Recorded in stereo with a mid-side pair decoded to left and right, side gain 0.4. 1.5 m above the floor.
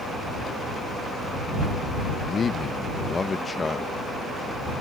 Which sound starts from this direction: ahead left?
A man speaking, at 2.1 s.